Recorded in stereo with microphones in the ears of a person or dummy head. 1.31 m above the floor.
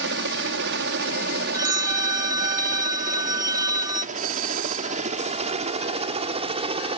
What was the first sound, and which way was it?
A helicopter, 65° right (ahead or behind).